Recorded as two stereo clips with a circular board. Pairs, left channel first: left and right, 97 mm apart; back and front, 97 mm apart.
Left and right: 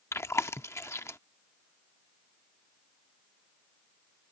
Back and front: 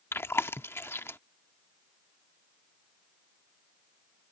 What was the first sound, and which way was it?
Chewing, 135° left.